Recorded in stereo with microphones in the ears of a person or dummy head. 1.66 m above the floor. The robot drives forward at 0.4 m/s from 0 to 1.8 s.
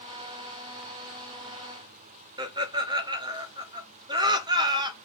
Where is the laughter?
15° right (ahead or behind), 0.8 m.